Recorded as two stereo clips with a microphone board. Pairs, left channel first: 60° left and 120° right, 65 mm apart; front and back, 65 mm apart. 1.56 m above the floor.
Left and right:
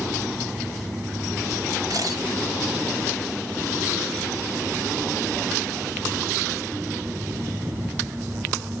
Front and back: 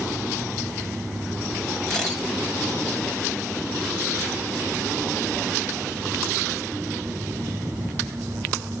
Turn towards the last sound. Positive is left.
turn(degrees=-85)